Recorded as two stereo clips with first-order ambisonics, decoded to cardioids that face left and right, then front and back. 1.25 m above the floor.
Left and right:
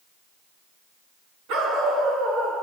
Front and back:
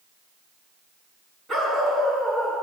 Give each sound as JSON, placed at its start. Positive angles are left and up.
{"t": 1.5, "sound": "a dog barking", "azimuth_deg": -105, "distance_m": 5.5}